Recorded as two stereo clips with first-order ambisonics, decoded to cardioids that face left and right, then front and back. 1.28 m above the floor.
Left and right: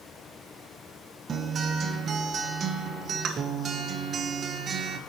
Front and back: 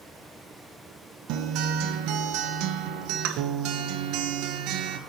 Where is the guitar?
150° right, 0.6 m.